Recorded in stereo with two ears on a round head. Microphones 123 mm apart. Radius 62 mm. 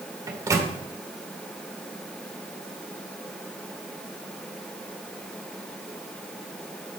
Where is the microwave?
25° right (ahead or behind), 1.5 m.